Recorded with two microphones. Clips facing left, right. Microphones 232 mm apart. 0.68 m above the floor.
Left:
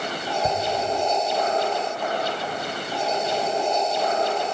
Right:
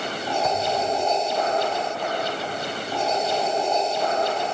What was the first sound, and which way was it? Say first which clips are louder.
A whoosh: left 1 dB; 30° left (ahead or behind).